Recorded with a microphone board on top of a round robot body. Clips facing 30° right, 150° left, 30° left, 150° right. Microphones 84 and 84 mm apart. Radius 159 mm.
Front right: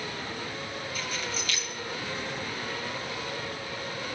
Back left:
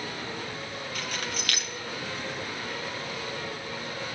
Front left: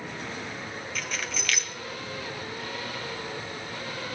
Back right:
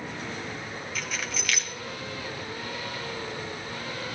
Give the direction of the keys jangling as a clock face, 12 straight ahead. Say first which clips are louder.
Back left 1 dB, even; 8 o'clock.